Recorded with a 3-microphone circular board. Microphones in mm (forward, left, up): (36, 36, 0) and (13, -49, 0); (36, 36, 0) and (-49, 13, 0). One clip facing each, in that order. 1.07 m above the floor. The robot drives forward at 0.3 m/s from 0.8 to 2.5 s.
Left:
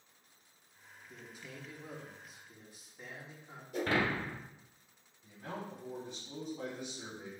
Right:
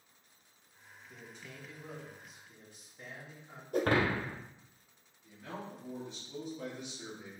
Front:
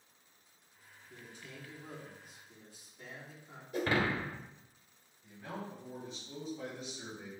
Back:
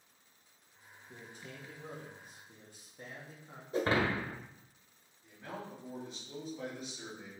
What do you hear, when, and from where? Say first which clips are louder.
1.1 s a man speaking: left 1 dB, back 1 dB; 155° left, 1.9 m; by 3.6 s 160° left, 2 m
3.7 s breaking glass: right 3 dB, back 1 dB; 115° right, 1.1 m
5.2 s a man speaking: left 1 dB, front 1 dB; 110° left, 3.5 m